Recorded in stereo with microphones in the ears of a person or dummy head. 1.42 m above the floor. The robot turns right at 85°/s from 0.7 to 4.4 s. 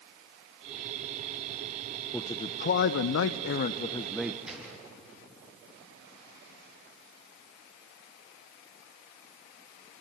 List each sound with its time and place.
2.1 s a man speaking: 5° left, 0.6 m; by 4.3 s 165° right, 0.6 m
4.5 s a gunshot: 5° right (ahead or behind), 7 m